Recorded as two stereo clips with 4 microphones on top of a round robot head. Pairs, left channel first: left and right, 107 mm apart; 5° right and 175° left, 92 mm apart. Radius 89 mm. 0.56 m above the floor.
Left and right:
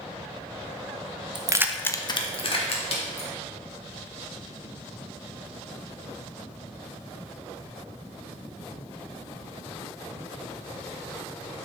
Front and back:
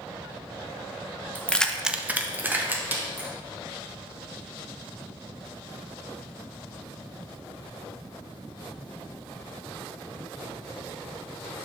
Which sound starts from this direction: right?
Keys jangling, at 1.4 s.